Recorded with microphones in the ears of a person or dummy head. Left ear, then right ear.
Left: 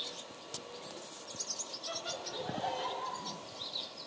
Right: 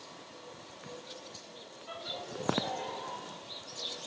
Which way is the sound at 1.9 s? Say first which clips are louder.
Right 1 dB; 15° left (ahead or behind).